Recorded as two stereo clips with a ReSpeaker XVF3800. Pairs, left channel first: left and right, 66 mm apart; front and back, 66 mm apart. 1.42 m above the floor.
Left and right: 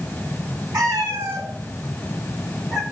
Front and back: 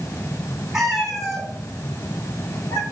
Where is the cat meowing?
95° right, 3 m; by 2.8 s 5° right, 1.3 m.